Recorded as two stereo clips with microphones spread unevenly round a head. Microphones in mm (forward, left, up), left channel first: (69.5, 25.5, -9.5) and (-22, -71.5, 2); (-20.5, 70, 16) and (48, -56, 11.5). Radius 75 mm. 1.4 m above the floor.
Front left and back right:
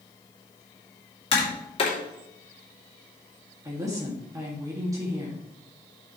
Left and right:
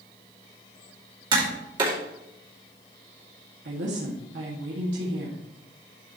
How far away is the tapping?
About 3 m.